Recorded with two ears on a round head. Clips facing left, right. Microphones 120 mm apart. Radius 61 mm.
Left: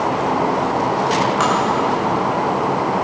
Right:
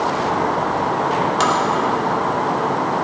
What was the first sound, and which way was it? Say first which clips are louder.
Tapping: left 1 dB; 40° right (ahead or behind).